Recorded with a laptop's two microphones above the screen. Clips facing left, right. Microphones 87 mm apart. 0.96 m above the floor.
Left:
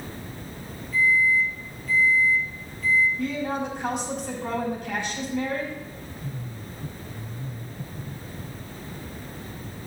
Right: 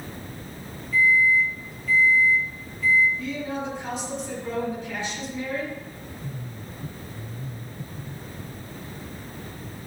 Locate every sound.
0.9 s a microwave: 45° left (ahead or behind), 1.5 m
3.2 s a woman speaking: 60° left (ahead or behind), 7.5 m